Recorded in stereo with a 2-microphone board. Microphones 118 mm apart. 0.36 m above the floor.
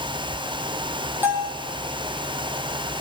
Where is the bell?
15° right (ahead or behind), 8 m.